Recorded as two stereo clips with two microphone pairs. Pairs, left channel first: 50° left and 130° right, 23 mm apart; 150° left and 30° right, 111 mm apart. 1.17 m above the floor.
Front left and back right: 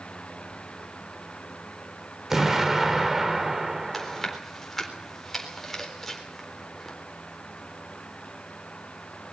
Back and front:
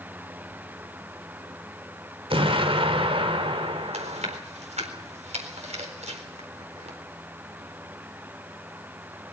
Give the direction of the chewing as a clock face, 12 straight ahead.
1 o'clock.